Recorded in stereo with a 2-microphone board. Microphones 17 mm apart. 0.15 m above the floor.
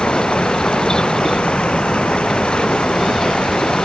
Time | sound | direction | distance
0.0 | running water | 80° left | ?